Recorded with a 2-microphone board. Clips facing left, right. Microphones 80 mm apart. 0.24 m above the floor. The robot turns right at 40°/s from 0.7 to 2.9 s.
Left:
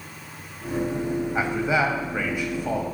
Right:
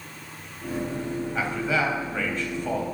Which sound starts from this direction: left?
A man speaking, at 1.4 s.